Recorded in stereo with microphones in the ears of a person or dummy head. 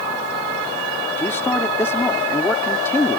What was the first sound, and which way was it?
A man speaking, 10° left (ahead or behind).